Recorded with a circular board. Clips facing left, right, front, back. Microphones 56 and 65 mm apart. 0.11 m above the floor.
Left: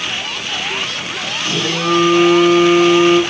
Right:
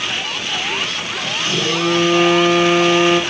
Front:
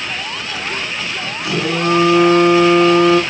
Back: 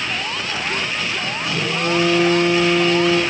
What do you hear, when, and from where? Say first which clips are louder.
1.4 s a phone buzzing: left 1 dB, front 6 dB; straight ahead, 5.5 m